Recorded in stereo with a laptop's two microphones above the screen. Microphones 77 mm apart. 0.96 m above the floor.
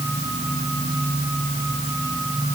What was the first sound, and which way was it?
Only background noise.